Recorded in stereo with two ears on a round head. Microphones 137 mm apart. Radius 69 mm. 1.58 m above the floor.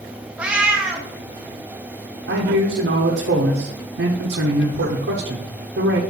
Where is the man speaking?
80° right, 1.1 m.